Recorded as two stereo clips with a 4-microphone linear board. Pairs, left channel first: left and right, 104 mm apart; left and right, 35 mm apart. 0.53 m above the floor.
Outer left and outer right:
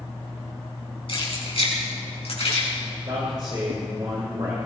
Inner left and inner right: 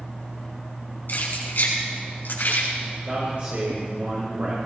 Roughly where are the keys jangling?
Left.